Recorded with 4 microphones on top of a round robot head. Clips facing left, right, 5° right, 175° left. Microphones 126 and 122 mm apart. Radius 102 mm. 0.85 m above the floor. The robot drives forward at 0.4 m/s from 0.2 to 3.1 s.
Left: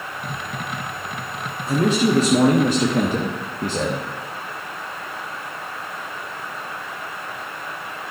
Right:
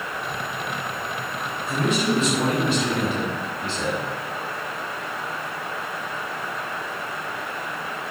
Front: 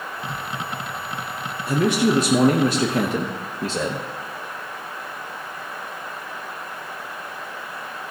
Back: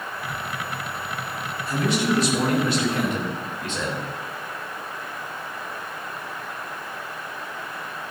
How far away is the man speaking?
About 1.6 m.